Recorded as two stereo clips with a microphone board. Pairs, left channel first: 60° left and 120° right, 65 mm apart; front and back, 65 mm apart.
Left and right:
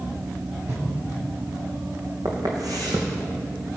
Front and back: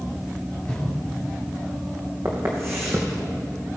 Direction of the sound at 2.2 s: 135° right.